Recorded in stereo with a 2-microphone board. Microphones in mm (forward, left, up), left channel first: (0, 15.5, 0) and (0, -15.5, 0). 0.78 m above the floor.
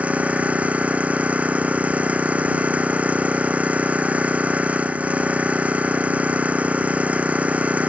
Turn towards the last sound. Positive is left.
turn(degrees=-45)  # may be behind; listen again after turning